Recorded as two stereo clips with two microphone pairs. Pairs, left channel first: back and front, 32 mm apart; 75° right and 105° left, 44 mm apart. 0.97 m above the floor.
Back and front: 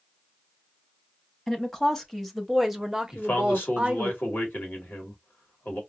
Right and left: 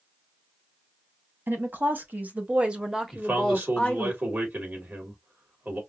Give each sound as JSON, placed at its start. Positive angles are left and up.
{"t": 1.5, "sound": "a woman speaking", "azimuth_deg": 110, "distance_m": 1.2}
{"t": 3.1, "sound": "a man speaking", "azimuth_deg": 160, "distance_m": 1.9}